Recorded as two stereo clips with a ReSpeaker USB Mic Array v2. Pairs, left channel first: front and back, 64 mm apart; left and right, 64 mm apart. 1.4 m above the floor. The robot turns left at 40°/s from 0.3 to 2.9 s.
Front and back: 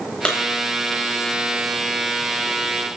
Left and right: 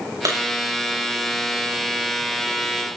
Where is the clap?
75° right, 8 m.